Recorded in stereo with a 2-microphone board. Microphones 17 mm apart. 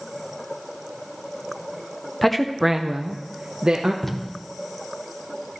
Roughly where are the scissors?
No scissors in this recording.